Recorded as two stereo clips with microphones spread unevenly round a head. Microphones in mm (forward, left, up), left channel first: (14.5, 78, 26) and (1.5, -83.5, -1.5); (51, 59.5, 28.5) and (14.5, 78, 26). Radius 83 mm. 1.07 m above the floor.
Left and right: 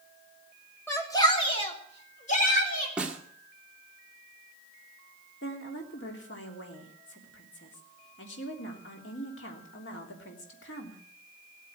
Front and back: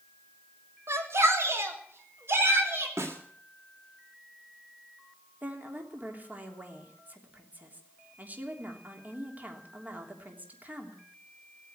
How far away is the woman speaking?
About 3 m.